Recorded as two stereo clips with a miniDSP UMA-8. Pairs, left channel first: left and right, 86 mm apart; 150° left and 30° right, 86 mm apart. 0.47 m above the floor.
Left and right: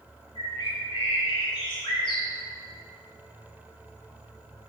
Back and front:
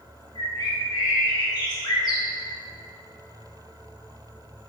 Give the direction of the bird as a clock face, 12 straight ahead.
8 o'clock.